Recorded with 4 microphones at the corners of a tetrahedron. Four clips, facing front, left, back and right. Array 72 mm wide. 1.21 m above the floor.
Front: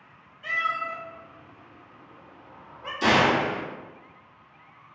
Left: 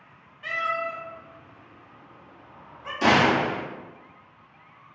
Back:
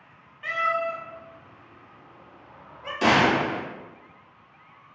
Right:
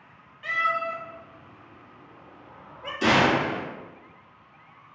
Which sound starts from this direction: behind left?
A gunshot, at 3.0 s.